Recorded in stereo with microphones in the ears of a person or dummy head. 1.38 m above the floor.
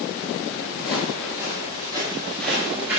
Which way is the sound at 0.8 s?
45° left (ahead or behind).